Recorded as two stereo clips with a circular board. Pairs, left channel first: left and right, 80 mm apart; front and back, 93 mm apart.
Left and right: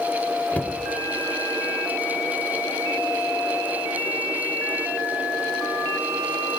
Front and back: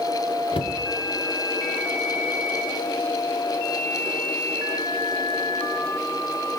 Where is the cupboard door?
15° left, 0.8 m.